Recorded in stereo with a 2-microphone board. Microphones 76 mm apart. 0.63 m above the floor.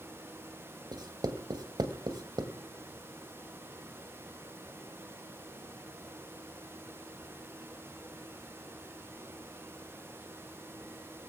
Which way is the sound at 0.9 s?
70° right (ahead or behind).